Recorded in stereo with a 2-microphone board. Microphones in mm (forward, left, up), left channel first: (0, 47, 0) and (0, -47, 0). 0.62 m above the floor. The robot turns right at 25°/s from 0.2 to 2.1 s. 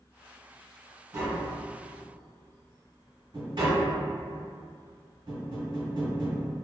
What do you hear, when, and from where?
1.1 s tapping: 30° right (ahead or behind), 1.2 m; by 6.5 s 55° right (ahead or behind), 1.2 m